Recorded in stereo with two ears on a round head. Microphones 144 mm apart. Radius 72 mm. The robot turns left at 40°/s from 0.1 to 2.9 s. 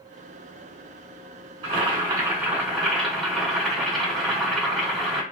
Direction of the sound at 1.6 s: 130° right.